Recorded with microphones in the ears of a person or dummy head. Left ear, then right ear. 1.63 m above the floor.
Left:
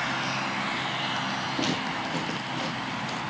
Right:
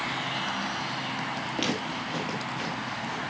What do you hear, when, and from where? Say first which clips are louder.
1.6 s footsteps: left 2 dB; 25° right (ahead or behind), 1.9 m; by 3.2 s 15° left (ahead or behind), 2 m